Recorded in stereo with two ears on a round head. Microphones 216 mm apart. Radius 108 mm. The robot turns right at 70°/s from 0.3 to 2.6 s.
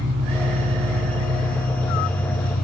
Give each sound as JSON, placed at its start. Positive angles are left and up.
{"t": 0.0, "sound": "an engine running", "azimuth_deg": -130, "distance_m": 1.1}